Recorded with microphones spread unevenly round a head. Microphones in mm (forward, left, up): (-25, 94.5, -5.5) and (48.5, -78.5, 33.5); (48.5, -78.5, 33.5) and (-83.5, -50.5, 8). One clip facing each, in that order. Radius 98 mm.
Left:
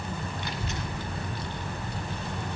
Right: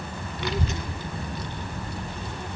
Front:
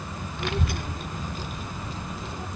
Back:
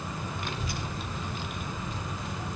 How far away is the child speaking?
About 0.7 m.